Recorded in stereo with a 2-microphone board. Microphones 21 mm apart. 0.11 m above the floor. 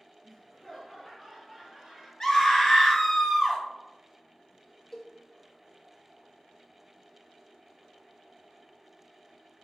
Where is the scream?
20° left (ahead or behind), 1.7 m.